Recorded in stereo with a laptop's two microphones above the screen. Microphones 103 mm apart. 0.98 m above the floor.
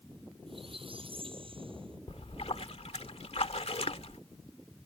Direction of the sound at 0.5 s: 60° right (ahead or behind).